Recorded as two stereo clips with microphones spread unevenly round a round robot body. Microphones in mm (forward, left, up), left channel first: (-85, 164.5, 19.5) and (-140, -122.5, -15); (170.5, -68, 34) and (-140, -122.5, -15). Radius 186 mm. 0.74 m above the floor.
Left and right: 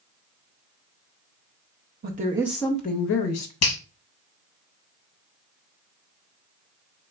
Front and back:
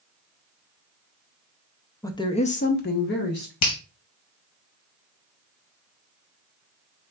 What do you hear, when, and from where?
2.0 s a woman speaking: 75° right, 0.6 m; by 3.5 s 70° left, 0.7 m
3.6 s a finger snap: 40° left, 0.8 m